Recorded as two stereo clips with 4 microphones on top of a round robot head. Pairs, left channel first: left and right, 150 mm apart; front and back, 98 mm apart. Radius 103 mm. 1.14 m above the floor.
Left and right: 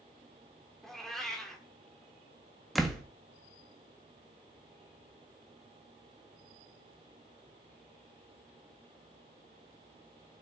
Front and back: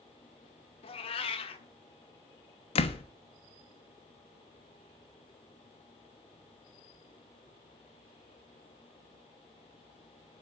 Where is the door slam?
Straight ahead, 1.5 m.